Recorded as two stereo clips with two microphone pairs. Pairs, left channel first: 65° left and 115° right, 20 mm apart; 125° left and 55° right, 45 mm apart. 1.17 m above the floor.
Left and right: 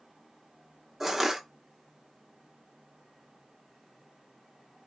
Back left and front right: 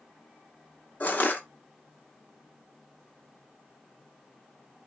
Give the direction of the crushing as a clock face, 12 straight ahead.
6 o'clock.